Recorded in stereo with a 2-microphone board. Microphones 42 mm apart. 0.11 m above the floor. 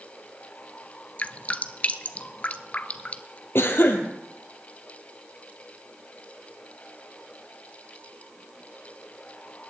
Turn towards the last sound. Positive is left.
turn(degrees=65)  # may be behind; listen again after turning